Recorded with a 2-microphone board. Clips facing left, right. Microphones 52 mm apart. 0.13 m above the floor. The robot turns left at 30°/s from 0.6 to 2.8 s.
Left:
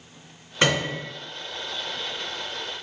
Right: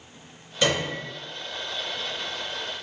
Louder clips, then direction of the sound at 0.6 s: Left 2 dB; 40° left (ahead or behind).